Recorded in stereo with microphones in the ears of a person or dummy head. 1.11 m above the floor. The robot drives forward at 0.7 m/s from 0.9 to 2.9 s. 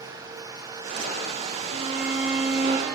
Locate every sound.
1.7 s a violin: 45° right (ahead or behind), 2.5 m; by 3.0 s 60° right (ahead or behind), 2 m